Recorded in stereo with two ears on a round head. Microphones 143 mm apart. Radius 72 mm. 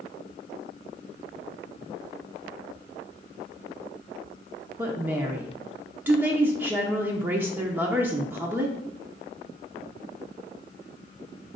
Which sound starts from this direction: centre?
A woman speaking, at 4.8 s.